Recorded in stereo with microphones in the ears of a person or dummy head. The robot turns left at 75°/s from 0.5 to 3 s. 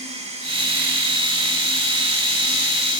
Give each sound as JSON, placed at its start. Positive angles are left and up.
{"t": 0.0, "sound": "running water", "azimuth_deg": -155, "distance_m": 2.5}